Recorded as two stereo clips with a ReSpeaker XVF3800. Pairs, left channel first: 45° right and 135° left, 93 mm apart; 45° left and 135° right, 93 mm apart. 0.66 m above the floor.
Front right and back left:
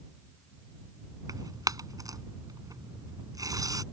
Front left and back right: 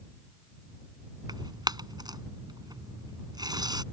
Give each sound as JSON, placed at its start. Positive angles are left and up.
{"t": 1.3, "sound": "tearing paper", "azimuth_deg": -175}